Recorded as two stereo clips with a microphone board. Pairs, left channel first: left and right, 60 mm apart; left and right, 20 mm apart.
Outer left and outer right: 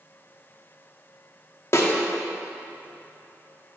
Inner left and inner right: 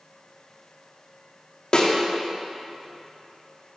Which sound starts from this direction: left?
A snare drum, at 1.7 s.